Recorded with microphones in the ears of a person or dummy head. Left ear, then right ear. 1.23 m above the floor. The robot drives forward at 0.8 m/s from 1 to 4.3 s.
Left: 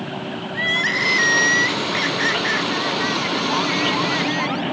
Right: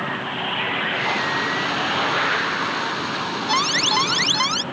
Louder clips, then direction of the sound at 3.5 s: Right 4 dB; 80° right.